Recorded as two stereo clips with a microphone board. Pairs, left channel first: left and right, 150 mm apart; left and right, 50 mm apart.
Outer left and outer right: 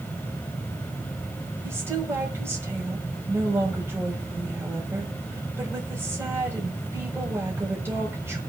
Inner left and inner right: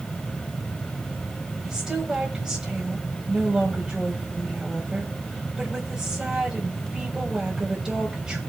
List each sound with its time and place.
1.6 s a woman speaking: 15° right (ahead or behind), 4.5 m